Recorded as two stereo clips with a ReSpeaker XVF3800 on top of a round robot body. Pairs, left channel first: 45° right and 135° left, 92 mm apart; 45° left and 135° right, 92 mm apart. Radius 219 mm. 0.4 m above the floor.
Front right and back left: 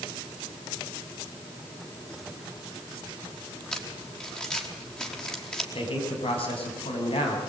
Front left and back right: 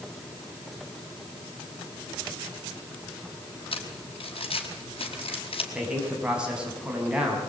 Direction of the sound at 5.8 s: 55° right.